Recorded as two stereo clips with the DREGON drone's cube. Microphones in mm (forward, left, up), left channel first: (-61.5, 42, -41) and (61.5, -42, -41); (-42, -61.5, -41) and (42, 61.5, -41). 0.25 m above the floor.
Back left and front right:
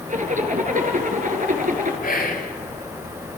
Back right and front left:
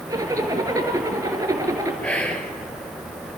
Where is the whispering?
155° left, 4 m.